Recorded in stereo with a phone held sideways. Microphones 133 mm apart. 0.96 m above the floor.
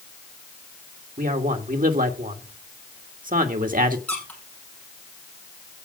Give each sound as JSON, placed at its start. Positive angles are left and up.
{"t": 1.2, "sound": "a man speaking", "side_deg": -75, "distance_m": 1.8}
{"t": 4.1, "sound": "a squeak", "side_deg": 10, "distance_m": 4.0}